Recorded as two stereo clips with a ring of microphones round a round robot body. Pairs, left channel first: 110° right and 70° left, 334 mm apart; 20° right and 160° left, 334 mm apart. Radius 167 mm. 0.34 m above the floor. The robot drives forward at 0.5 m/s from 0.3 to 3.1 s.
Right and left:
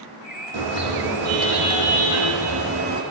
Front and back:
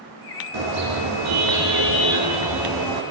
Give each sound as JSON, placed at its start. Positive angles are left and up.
{"t": 0.5, "sound": "a car horn", "azimuth_deg": 110, "distance_m": 10.0}